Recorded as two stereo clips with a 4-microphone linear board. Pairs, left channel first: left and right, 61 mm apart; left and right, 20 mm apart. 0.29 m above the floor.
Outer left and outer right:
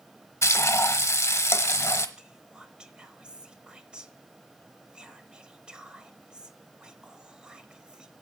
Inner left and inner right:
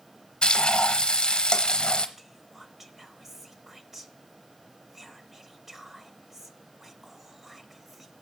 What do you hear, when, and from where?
0.4 s frying: 50° left (ahead or behind), 1.0 m
2.2 s whispering: 15° right (ahead or behind), 0.9 m